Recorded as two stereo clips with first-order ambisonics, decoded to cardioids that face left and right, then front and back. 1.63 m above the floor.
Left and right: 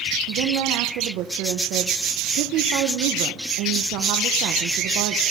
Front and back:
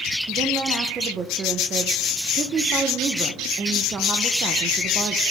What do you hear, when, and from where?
0.3 s a woman speaking: 115° right, 1.1 m